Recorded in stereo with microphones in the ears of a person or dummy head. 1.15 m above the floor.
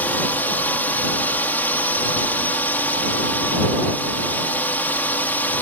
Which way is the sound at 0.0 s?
10° left (ahead or behind).